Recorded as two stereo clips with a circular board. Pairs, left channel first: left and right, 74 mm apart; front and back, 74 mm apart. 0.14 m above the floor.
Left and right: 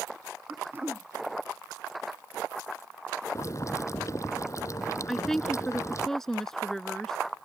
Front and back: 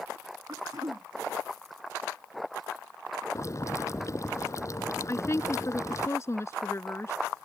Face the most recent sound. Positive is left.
turn(degrees=5)